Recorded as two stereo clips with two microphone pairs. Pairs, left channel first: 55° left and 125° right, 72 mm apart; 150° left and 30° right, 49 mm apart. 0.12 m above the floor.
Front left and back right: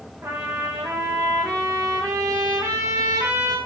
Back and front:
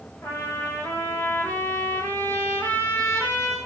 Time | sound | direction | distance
0.2 | a trumpet | 175° right | 9.5 m